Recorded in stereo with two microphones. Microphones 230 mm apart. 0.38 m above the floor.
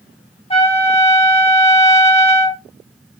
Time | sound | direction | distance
0.5 | a trumpet | 25° left (ahead or behind) | 0.8 m